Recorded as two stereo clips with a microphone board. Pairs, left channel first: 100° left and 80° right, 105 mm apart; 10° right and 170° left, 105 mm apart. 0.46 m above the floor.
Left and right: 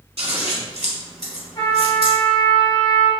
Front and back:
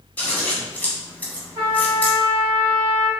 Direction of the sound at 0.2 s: 85° right.